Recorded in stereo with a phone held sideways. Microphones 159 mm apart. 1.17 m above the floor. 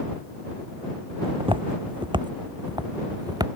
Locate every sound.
1.2 s footsteps: 35° right (ahead or behind); by 3.5 s 25° right (ahead or behind)